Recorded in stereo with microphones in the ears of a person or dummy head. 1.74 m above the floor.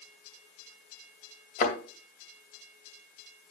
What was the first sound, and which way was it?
A thud, 45° left (ahead or behind).